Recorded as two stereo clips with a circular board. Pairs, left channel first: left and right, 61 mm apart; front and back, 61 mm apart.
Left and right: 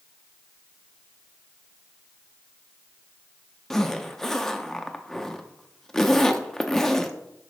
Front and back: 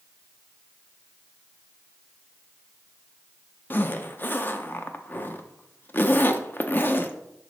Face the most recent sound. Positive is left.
turn(degrees=15)